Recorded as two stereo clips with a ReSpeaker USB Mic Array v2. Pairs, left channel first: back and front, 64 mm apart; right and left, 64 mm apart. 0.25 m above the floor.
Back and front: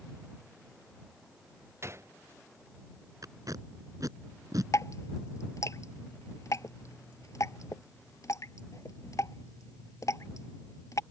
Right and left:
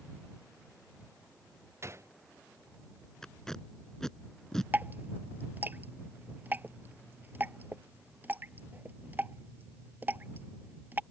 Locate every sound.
1.8 s a gunshot: 45° left
3.2 s tape being pulled: 10° right
4.7 s dripping: 150° left